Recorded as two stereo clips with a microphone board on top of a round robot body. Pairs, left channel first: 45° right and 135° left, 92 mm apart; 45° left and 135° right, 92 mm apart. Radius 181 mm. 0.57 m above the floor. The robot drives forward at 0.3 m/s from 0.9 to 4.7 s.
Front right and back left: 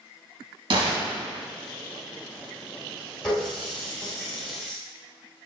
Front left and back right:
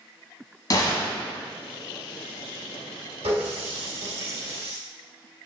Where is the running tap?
130° right, 3.5 m; by 4.8 s 135° right, 3.5 m.